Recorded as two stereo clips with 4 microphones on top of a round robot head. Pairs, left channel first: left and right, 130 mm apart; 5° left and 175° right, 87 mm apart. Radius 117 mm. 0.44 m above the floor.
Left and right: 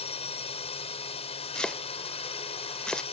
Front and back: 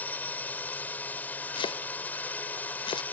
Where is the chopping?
5° left.